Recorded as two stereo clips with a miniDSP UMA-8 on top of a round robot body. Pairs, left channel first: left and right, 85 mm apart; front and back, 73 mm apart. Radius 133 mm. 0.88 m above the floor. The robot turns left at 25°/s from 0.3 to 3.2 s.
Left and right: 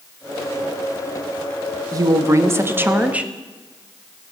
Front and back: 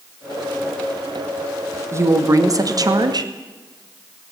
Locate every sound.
1.9 s a woman speaking: 130° right, 2 m; by 3.3 s 165° right, 2 m